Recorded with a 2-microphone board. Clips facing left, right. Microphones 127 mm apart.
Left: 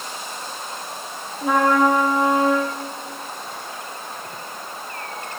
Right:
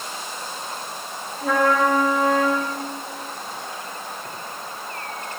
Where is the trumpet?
20° left (ahead or behind), 4.5 m.